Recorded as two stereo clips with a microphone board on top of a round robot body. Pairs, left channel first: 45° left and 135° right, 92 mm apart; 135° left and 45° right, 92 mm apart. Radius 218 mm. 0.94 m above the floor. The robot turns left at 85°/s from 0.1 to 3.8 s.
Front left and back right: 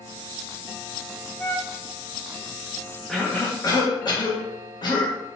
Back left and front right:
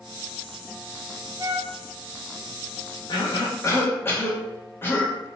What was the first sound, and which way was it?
A flute, 20° right.